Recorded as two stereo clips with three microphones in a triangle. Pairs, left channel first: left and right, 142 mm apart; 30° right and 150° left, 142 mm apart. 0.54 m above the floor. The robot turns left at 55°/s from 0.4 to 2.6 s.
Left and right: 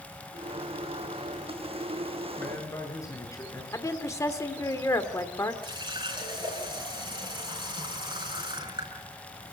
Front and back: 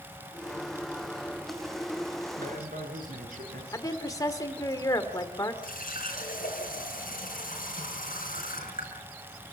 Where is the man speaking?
170° left, 6.5 m; by 3.6 s 160° left, 6.5 m.